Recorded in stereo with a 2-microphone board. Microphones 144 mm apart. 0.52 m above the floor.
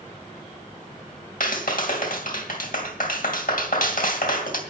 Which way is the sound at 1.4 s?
75° left (ahead or behind).